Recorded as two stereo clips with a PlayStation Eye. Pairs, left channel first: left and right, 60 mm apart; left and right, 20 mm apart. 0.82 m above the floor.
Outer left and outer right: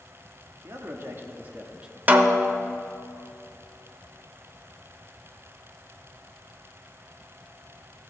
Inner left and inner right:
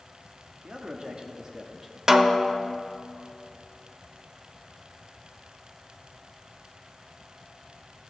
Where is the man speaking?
50° right (ahead or behind), 1.1 m; by 2.0 s 10° right (ahead or behind), 0.9 m.